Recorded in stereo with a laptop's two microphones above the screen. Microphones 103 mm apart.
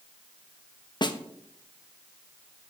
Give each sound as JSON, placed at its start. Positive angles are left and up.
{"t": 1.0, "sound": "a snare drum", "side_deg": 50, "distance_m": 0.6}